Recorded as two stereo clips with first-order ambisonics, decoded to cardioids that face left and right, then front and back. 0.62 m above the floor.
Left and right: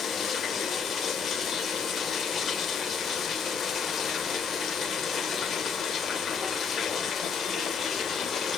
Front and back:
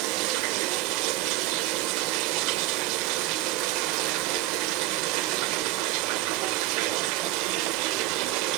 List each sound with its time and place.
0.0 s running water: 160° left, 0.7 m